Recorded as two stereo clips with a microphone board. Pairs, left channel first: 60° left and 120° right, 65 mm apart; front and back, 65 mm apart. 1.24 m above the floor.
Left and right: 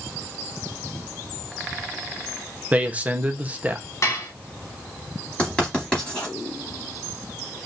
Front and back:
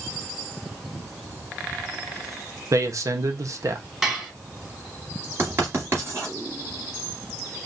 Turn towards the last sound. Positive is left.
turn(degrees=135)